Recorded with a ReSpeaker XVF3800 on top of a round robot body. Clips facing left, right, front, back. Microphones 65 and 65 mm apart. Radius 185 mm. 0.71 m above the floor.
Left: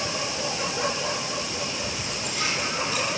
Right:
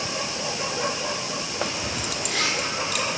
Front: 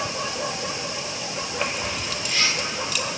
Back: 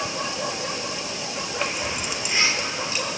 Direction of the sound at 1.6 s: 90° right.